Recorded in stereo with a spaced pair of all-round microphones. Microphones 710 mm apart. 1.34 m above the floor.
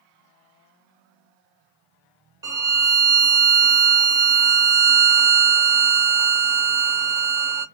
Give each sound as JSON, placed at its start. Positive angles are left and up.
{"t": 2.4, "sound": "a violin", "side_deg": -30, "distance_m": 0.7}